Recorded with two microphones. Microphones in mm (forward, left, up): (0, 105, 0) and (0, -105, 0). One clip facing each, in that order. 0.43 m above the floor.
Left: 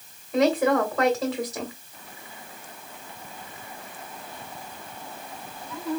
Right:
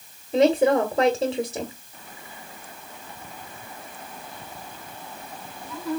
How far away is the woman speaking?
About 1.5 m.